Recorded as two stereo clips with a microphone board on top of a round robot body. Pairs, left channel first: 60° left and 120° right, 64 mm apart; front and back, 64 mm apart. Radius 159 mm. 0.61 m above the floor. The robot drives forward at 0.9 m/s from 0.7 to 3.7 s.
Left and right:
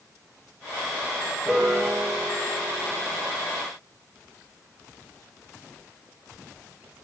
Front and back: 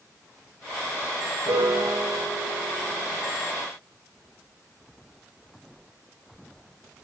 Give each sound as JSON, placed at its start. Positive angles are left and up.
{"t": 1.4, "sound": "a piano", "azimuth_deg": 165, "distance_m": 1.6}